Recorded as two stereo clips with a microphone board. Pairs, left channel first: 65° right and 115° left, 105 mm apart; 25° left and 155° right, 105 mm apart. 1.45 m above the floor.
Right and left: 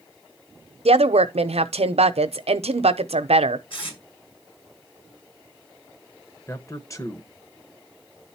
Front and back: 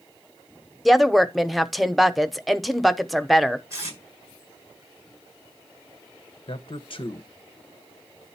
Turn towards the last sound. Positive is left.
turn(degrees=-10)